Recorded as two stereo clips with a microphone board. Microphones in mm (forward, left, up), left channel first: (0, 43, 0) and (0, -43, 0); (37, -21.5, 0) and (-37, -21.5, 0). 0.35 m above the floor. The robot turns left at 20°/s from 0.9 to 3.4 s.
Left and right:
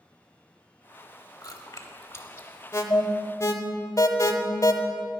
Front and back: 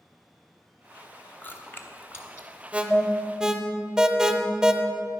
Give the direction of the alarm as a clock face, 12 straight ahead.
8 o'clock.